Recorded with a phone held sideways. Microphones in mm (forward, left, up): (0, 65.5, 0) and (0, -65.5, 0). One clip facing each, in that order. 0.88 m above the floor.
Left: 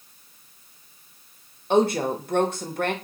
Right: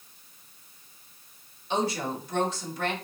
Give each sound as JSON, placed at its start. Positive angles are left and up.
{"t": 1.7, "sound": "a woman speaking", "side_deg": 55, "distance_m": 0.9}